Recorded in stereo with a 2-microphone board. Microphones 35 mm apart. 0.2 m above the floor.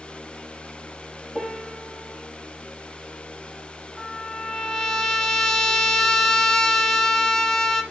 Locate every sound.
1.4 s a piano: 25° right (ahead or behind), 3.5 m
4.0 s a trumpet: 15° left (ahead or behind), 1.1 m